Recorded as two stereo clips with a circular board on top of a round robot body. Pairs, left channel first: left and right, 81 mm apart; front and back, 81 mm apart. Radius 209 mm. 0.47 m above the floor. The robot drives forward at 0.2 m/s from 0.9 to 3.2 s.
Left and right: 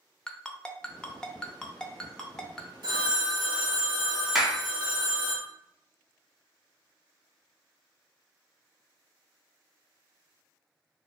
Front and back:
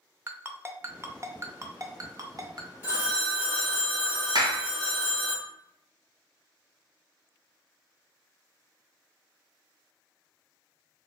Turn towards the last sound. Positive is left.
turn(degrees=-175)